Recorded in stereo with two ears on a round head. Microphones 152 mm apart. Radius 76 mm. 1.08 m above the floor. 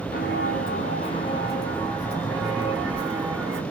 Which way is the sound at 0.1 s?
55° left (ahead or behind).